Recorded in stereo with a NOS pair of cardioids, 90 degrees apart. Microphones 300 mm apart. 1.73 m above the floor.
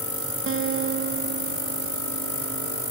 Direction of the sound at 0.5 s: 45° right.